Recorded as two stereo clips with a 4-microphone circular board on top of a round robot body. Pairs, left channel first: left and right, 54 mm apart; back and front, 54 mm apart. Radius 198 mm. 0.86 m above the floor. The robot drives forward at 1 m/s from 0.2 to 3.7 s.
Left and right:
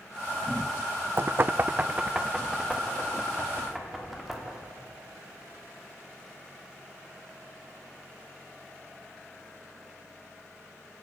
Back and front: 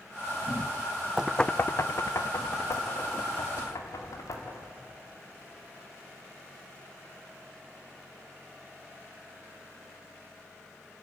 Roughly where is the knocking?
Ahead right.